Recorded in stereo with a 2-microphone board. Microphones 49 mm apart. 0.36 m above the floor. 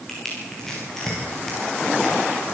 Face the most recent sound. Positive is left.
turn(degrees=10)  # may be behind; listen again after turning